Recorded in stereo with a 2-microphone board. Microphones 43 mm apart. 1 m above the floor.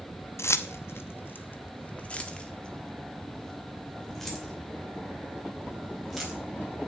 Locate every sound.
0.4 s keys jangling: 80° left, 0.8 m; by 6.4 s centre (ahead or behind), 3.5 m